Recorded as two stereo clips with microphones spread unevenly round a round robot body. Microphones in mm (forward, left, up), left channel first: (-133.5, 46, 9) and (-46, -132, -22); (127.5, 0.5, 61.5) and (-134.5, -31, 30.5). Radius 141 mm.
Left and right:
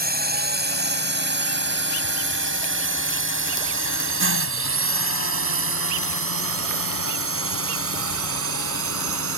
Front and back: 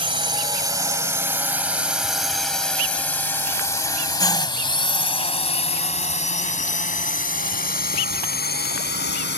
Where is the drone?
100° right; by 9.4 s 45° right.